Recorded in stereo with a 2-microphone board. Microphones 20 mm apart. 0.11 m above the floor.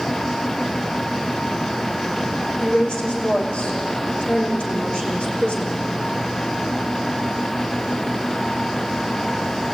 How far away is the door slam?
I don't hear a door slam.